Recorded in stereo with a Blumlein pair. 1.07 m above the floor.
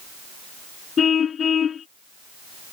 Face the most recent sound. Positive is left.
turn(degrees=25)